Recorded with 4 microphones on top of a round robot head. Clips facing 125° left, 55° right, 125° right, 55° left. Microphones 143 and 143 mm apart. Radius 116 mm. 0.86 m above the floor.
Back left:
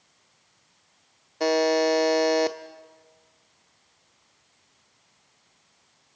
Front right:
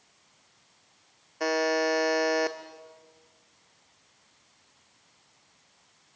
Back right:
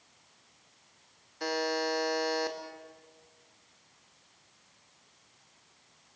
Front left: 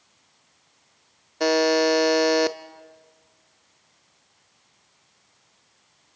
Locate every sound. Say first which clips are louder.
1.4 s a buzzer: back left 5 dB, front left 12 dB; 60° left, 0.6 m